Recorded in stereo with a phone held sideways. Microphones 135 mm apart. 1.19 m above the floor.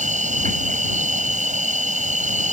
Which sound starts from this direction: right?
An insect, at 0.0 s.